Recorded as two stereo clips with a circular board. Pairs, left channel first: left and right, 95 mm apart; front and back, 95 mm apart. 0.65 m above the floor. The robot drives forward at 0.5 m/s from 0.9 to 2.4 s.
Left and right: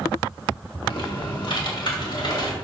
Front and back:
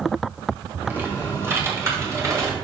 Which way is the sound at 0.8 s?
115° left.